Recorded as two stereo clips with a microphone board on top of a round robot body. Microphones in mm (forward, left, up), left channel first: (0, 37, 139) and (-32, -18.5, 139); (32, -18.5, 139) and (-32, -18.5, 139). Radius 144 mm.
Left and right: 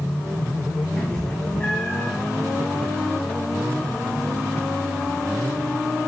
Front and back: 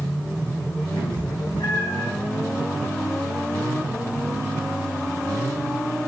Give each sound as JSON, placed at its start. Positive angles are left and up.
{"t": 1.0, "sound": "a cat meowing", "azimuth_deg": -15, "distance_m": 3.0}